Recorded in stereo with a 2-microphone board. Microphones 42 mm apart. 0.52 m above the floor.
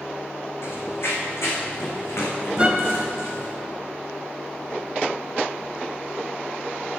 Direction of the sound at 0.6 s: 60° left (ahead or behind).